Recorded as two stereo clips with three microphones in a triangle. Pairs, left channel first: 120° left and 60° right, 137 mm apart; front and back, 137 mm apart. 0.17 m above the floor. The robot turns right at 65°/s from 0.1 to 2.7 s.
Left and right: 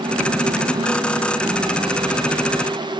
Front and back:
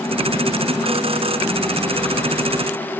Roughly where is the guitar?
I don't hear a guitar.